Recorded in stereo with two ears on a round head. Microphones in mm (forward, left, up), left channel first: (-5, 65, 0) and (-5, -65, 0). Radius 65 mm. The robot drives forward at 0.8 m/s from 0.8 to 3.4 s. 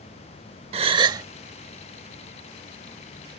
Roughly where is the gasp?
Right.